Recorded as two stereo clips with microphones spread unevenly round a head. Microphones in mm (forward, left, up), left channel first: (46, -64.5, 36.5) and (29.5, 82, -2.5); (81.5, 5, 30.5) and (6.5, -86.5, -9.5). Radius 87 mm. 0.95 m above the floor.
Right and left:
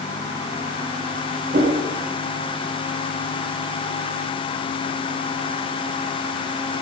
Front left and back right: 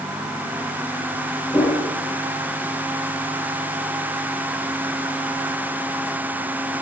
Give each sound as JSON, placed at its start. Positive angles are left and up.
{"t": 1.5, "sound": "a whoosh", "azimuth_deg": 125, "distance_m": 4.0}